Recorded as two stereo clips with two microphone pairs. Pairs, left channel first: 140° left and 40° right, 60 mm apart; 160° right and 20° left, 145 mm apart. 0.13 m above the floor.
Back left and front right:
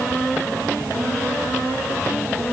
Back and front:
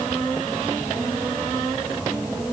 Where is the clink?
No clink in this recording.